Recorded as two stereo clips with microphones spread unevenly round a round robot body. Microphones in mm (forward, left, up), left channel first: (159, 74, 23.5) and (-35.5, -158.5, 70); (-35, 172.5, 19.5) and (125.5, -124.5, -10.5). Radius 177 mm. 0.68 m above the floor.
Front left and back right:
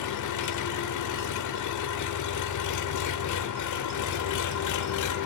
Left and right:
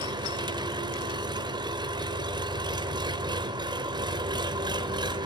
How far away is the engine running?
About 0.8 m.